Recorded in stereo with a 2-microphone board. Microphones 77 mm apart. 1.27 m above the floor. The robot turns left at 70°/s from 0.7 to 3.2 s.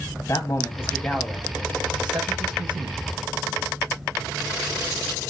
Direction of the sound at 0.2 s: 35° left.